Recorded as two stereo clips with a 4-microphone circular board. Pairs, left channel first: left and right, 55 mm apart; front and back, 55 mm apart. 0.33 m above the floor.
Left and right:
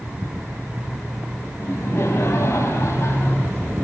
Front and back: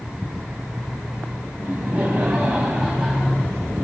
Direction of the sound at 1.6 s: 125° left.